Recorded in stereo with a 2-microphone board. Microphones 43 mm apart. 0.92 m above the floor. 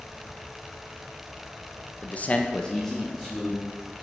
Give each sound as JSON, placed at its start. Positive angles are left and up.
{"t": 2.0, "sound": "a man speaking", "side_deg": 35, "distance_m": 0.7}